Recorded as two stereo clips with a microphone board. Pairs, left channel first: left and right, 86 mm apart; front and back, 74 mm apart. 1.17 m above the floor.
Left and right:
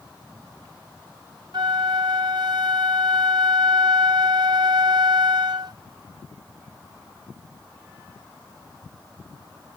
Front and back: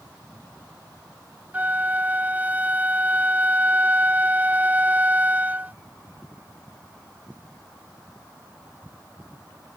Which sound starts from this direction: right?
A flute, at 1.5 s.